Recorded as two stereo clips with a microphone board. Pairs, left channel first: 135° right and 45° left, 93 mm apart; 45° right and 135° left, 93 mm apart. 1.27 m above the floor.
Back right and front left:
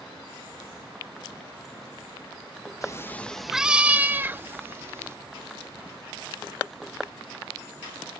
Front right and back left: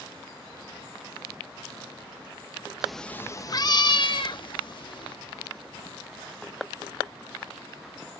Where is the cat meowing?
145° right; by 5.2 s 15° right.